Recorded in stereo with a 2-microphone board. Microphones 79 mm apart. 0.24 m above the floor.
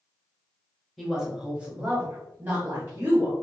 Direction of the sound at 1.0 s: 5° right (ahead or behind).